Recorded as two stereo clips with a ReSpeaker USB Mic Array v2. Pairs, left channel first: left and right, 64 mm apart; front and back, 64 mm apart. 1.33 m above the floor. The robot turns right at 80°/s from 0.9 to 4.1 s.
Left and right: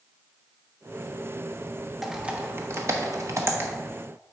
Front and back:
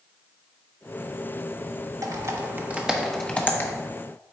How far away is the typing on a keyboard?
About 1.0 m.